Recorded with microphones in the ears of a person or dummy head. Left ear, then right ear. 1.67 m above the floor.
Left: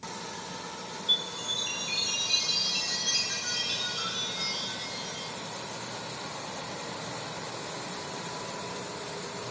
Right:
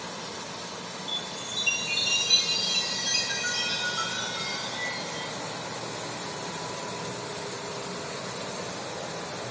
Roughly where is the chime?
Right.